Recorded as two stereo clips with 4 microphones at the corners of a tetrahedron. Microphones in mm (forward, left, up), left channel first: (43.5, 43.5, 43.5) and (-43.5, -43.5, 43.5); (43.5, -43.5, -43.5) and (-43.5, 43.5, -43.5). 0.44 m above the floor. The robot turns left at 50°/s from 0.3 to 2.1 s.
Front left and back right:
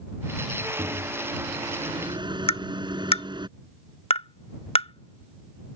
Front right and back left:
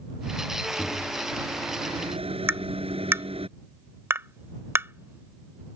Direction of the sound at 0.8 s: 120° right.